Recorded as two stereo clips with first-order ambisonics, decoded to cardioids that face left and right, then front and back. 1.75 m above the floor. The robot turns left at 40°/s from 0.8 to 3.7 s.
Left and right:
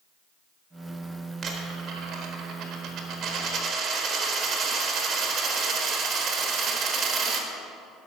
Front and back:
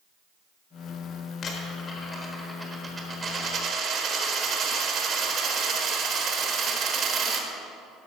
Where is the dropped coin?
45° right, 1.3 m; by 7.5 s 135° right, 1.3 m.